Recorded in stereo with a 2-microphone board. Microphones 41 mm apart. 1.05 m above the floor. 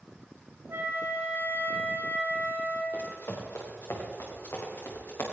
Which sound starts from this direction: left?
Running footsteps, at 2.9 s.